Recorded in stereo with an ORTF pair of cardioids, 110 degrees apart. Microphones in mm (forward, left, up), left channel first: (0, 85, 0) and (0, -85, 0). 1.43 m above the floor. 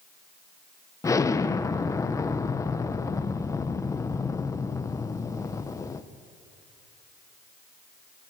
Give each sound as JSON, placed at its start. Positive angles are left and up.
{"t": 1.0, "sound": "an explosion", "azimuth_deg": 20, "distance_m": 0.9}